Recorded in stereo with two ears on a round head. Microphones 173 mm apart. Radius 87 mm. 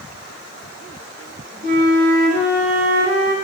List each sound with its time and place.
1.6 s a flute: 50° right (ahead or behind), 2.5 m